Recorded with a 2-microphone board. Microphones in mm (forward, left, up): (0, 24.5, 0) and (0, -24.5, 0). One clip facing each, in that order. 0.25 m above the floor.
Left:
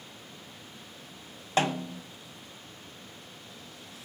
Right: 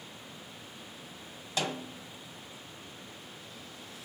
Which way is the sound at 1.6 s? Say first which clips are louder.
Left 7 dB; 40° left (ahead or behind).